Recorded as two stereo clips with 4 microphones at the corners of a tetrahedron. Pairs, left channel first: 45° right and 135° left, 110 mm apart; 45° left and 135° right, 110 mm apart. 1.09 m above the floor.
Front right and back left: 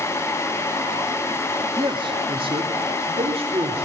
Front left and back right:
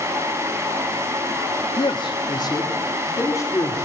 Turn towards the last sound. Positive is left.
turn(degrees=110)